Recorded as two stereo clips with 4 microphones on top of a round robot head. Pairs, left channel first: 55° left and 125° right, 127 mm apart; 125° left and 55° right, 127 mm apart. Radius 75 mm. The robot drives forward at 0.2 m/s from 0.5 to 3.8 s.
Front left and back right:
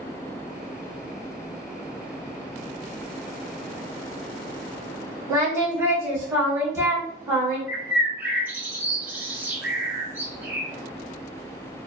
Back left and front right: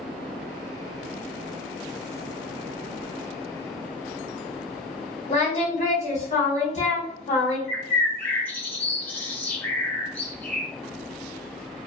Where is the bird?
Straight behind, 0.8 m.